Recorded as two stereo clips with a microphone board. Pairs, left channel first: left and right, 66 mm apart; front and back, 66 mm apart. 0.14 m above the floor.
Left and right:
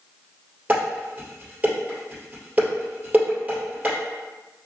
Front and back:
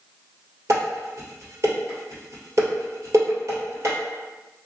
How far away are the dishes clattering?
About 1.9 m.